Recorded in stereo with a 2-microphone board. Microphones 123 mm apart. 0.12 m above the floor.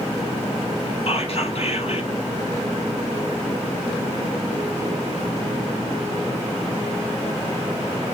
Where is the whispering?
50° left (ahead or behind), 3 m.